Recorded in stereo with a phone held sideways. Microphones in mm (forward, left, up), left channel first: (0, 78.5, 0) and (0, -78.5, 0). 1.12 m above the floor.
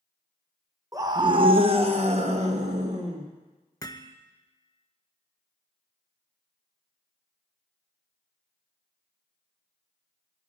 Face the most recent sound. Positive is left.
turn(degrees=25)  # may be behind; listen again after turning